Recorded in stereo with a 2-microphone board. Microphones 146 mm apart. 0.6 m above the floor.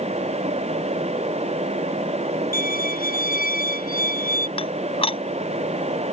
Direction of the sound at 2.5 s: 75° left (ahead or behind).